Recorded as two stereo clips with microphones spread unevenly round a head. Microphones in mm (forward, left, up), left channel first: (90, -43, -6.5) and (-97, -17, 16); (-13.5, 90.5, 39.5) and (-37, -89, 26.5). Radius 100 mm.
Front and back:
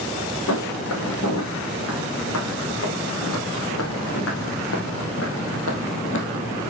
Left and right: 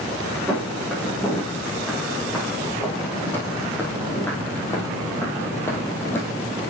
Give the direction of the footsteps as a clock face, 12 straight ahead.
12 o'clock.